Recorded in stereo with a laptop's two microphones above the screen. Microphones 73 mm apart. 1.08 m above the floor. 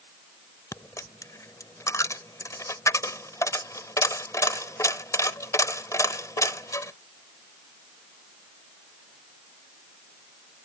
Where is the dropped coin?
50° left (ahead or behind).